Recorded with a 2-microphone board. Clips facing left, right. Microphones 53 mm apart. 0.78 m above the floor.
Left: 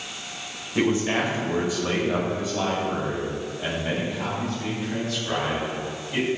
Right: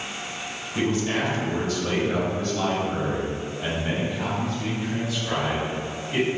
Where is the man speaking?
25° left (ahead or behind), 3 m; by 6.3 s 10° right (ahead or behind), 6 m.